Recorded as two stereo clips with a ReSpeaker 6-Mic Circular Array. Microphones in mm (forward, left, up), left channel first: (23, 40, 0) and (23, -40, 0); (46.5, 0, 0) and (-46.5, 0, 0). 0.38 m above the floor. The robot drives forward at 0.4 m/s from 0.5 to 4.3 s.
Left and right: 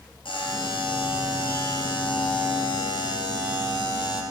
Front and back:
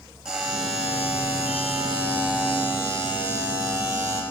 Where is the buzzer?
100° left, 3 m; by 4.2 s 125° left, 3.5 m.